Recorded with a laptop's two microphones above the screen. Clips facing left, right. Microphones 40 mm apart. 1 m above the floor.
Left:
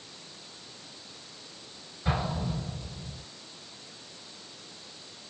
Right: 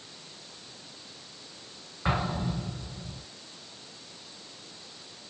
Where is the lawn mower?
No lawn mower in this recording.